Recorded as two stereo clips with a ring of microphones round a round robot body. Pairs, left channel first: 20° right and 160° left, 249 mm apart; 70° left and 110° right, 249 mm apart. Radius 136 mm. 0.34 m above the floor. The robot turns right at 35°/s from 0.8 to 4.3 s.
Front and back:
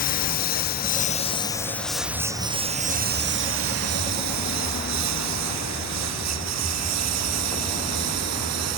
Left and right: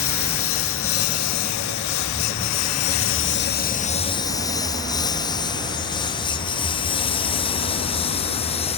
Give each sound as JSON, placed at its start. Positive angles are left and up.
{"t": 0.0, "sound": "a lawn mower", "azimuth_deg": 35}